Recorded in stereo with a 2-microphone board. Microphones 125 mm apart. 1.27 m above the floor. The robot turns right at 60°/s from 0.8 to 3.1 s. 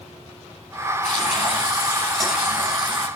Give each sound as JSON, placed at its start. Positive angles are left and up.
{"t": 1.0, "sound": "frying", "azimuth_deg": 110, "distance_m": 9.0}